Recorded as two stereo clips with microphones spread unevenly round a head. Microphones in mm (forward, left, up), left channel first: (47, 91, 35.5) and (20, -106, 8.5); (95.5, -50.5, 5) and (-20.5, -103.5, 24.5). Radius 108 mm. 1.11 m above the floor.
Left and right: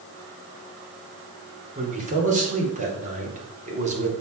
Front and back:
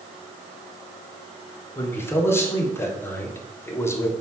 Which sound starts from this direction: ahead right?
A man speaking, at 1.8 s.